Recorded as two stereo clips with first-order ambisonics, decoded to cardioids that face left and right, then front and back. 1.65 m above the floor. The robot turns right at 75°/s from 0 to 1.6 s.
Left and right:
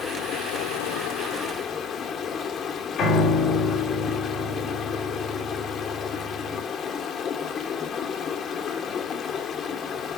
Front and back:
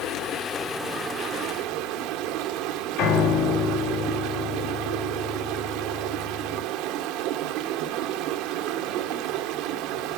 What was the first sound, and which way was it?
Running water, 35° left.